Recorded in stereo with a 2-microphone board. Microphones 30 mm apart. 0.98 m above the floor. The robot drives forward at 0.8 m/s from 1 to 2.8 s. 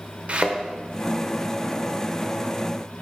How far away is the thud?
About 0.9 m.